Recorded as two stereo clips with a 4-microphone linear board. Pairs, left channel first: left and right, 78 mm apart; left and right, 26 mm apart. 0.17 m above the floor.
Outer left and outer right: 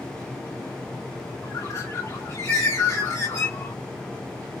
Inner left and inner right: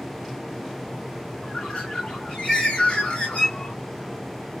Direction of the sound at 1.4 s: 40° left (ahead or behind).